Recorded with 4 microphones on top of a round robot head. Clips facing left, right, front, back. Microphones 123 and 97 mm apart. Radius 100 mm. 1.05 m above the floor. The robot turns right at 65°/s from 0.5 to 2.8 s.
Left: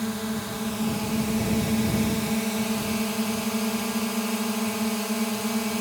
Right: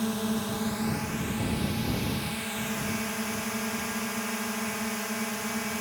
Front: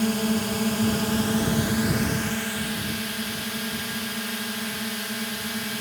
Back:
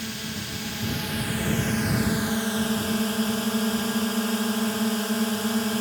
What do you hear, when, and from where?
0.0 s a drone: 5° right; by 5.8 s 145° left